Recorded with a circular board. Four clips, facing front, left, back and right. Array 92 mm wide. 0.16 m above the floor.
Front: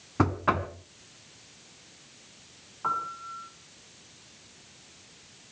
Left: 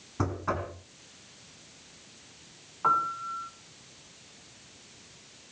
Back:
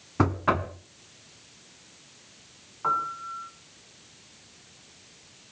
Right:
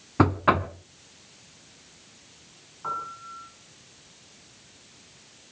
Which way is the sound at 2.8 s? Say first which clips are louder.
Left 7 dB, back 3 dB; 100° left.